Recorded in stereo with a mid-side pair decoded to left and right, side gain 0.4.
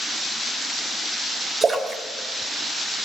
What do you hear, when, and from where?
1.6 s a splash: 35° right, 4 m